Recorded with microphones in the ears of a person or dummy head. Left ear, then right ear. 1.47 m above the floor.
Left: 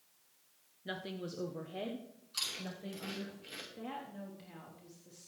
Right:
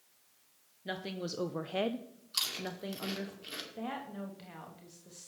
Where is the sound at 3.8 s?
25° right (ahead or behind), 1.1 m.